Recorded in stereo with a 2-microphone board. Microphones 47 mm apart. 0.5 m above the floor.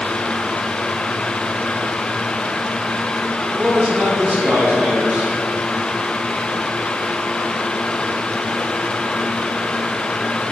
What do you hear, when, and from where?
3.5 s a man speaking: 35° right (ahead or behind), 1.3 m